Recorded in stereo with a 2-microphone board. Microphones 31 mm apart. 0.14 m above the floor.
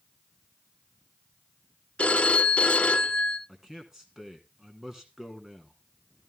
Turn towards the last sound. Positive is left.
turn(degrees=-15)  # may be behind; listen again after turning